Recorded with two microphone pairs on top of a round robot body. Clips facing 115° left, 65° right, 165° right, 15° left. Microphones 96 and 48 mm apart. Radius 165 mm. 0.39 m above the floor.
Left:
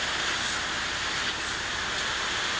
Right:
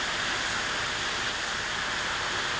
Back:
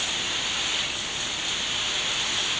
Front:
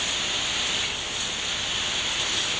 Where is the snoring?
No snoring in this recording.